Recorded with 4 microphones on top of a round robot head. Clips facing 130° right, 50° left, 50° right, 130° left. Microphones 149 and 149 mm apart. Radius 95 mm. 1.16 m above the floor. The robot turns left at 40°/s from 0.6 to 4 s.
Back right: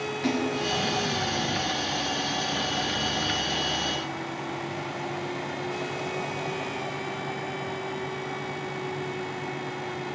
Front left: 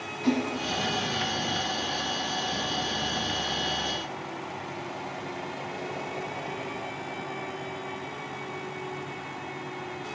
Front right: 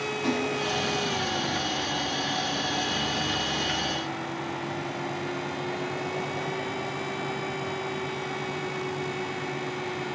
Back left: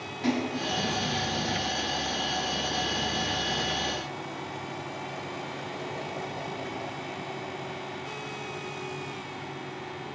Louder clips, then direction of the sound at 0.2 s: Front left 1 dB, back left 1 dB; 170° right.